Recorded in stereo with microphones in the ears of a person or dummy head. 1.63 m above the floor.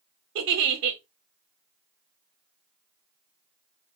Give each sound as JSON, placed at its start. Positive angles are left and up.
{"t": 0.3, "sound": "a giggle", "side_deg": -65, "distance_m": 0.7}